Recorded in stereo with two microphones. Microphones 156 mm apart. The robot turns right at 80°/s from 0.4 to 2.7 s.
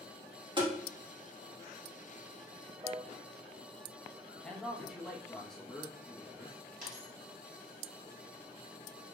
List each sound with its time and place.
0.6 s tapping: 30° right (ahead or behind), 1.7 m; by 0.7 s 15° right (ahead or behind), 1.7 m
2.8 s a piano: 20° right (ahead or behind), 0.9 m
4.4 s a man speaking: 5° left (ahead or behind), 1.3 m
6.8 s a dropped coin: 55° right (ahead or behind), 2 m